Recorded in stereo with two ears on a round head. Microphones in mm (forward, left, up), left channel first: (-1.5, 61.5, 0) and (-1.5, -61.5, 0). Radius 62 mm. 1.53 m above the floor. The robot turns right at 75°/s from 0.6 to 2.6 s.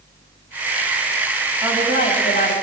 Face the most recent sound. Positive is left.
turn(degrees=80)